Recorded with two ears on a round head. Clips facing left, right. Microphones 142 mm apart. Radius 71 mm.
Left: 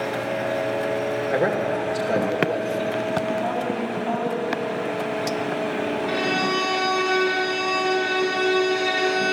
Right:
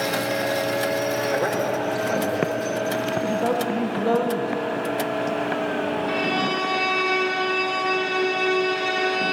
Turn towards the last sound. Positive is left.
turn(degrees=10)  # may be behind; listen again after turning